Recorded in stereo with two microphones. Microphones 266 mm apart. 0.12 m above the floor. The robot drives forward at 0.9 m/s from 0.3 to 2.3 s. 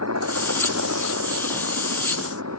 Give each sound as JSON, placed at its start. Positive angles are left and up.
{"t": 0.0, "sound": "a helicopter", "side_deg": -70}